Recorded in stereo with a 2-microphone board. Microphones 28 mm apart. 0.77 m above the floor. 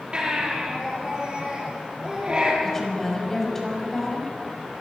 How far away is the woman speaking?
About 5.5 m.